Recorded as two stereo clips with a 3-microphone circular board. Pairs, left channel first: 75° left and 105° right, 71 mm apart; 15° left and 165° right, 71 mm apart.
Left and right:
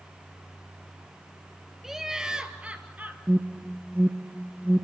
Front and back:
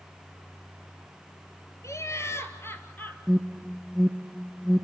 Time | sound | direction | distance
1.8 | laughter | 20° right | 2 m
3.3 | an alarm | 75° right | 1.1 m